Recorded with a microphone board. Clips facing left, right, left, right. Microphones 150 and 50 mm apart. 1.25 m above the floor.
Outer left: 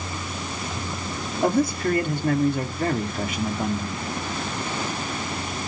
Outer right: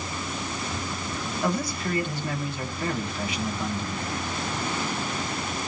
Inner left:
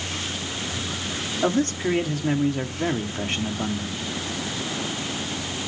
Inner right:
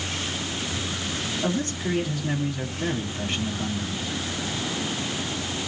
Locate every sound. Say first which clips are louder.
1.4 s a man speaking: outer left 8 dB, inner left 6 dB; 50° left (ahead or behind), 2 m